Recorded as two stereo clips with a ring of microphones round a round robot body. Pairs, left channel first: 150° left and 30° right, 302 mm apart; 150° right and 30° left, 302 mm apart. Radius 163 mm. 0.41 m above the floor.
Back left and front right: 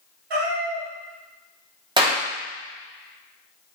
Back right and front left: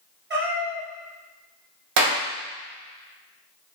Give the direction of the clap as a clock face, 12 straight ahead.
11 o'clock.